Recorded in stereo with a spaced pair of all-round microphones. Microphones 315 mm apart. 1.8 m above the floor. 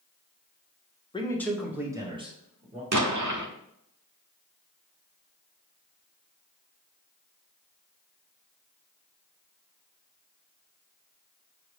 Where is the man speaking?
15° left (ahead or behind), 0.8 m; by 2.8 s 25° right (ahead or behind), 1.7 m.